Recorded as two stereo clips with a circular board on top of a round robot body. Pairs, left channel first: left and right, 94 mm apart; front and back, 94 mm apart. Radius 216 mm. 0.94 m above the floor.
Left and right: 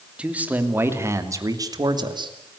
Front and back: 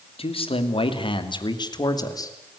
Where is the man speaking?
10° right, 3 m; by 2.3 s 55° right, 3 m.